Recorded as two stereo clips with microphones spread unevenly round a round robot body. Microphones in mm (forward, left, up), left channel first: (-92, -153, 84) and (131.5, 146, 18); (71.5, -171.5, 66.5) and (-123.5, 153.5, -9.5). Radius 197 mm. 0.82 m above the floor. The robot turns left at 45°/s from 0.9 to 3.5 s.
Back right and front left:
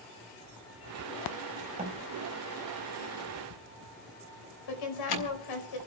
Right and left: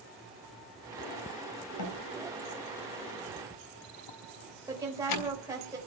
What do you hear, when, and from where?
1.8 s a door slam: 20° right, 4 m; by 5.4 s 95° right, 4 m
4.7 s a woman speaking: 160° right, 4.5 m